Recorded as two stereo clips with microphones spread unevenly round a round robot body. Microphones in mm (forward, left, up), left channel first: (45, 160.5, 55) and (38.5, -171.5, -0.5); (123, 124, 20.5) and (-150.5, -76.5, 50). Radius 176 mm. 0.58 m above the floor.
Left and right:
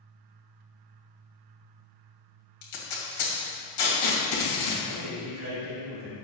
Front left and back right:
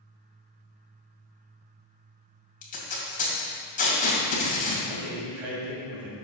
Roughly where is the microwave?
No microwave in this recording.